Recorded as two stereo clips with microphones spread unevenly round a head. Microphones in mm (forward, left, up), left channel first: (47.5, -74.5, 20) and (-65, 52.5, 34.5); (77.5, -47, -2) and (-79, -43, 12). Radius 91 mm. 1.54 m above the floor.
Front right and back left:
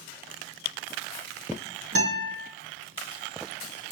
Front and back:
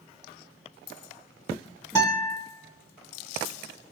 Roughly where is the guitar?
Left.